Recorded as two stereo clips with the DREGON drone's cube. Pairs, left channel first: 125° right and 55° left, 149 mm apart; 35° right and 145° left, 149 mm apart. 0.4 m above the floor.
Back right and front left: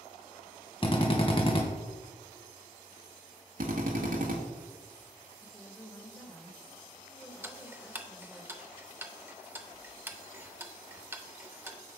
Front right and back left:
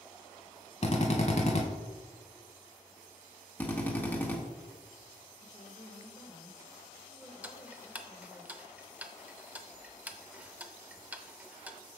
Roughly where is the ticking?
Left.